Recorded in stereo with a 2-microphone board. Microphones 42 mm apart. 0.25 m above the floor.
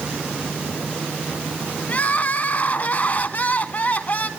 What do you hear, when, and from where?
1.9 s crying: 45° left (ahead or behind), 0.9 m